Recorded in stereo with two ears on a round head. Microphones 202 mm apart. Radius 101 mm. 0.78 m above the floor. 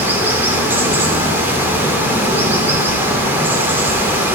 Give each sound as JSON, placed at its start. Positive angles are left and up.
{"t": 0.0, "sound": "running water", "side_deg": -10, "distance_m": 1.9}